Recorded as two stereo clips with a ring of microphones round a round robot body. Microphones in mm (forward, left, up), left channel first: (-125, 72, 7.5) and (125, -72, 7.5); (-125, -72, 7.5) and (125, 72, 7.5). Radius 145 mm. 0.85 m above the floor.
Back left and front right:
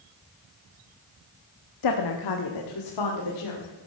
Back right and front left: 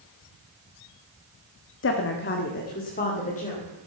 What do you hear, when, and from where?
1.8 s a woman speaking: 160° left, 1.2 m; by 3.9 s 145° left, 3 m